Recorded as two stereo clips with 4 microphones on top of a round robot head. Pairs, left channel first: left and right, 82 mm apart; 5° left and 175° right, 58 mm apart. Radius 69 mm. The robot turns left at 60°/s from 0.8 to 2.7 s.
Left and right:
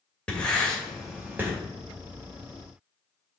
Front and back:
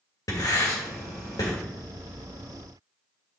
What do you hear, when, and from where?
0.3 s writing: 10° left, 2 m; by 1.5 s 30° right, 2 m